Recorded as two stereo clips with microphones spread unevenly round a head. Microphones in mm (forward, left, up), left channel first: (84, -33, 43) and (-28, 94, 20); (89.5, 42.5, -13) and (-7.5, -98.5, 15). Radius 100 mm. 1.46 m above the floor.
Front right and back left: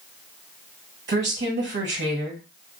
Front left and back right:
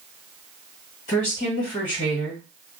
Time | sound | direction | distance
1.1 | a woman speaking | 110° left | 1.4 m